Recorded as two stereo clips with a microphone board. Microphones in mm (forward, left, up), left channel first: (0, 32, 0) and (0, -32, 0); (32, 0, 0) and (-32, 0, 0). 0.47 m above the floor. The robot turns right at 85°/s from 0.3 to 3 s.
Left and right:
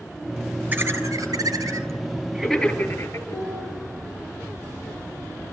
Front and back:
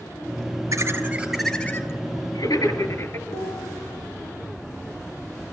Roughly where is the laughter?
Behind right.